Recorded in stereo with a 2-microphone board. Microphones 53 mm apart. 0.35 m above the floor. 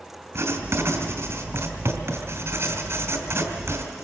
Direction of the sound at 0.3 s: 60° right (ahead or behind).